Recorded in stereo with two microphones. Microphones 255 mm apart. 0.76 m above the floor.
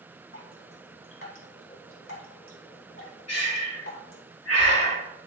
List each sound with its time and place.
0.3 s dripping: 55° left (ahead or behind), 3 m
3.3 s breathing: 75° left (ahead or behind), 3.5 m